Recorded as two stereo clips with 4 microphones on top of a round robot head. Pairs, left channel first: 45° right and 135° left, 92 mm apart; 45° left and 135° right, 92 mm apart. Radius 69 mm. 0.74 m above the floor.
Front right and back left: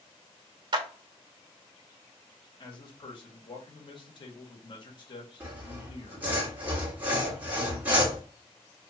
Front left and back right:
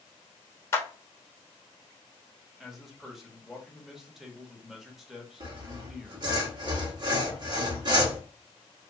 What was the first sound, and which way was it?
A clap, 105° left.